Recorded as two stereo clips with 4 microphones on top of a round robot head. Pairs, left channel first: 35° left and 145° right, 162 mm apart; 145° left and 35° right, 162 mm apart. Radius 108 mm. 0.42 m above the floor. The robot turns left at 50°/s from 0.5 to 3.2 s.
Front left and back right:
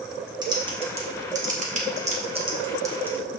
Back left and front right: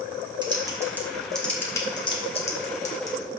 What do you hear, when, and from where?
0.4 s typing on a keyboard: 90° right, 1.7 m; by 3.2 s 140° left, 1.7 m